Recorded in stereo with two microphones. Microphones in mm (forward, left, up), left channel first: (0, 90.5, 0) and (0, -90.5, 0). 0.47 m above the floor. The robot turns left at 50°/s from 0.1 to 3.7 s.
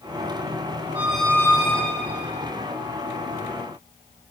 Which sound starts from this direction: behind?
A squeak, at 0.9 s.